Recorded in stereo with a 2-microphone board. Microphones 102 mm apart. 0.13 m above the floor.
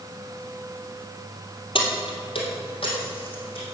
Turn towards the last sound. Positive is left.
turn(degrees=65)  # may be behind; listen again after turning